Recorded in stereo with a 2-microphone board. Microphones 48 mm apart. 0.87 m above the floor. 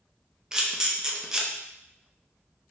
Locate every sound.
0.5 s a camera shutter: 15° right (ahead or behind), 0.6 m